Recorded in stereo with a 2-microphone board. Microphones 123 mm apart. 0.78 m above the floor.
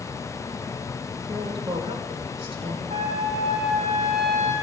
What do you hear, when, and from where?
1.3 s a woman speaking: 45° right (ahead or behind), 2.5 m
2.9 s a trumpet: 55° right (ahead or behind), 4.5 m